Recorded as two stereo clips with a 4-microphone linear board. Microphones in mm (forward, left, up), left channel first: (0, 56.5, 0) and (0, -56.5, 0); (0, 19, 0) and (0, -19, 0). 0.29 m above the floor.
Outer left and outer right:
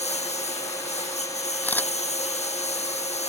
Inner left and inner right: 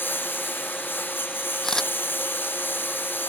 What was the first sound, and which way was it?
A lawn mower, 75° left (ahead or behind).